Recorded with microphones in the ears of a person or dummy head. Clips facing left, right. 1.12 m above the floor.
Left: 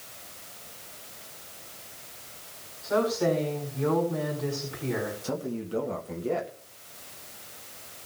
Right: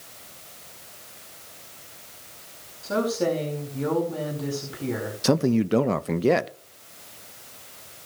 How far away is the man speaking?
About 0.6 m.